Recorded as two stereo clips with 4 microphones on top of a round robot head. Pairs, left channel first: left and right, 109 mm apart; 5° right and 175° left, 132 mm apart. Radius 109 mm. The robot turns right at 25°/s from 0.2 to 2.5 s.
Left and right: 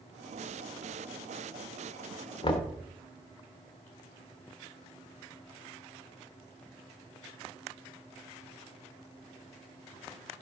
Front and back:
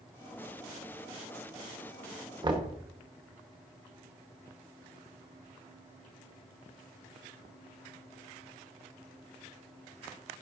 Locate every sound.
2.4 s knocking: 120° left, 1.4 m; by 2.8 s 125° left, 1.4 m